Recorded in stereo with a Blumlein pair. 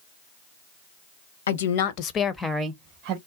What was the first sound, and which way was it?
A woman speaking, 65° left.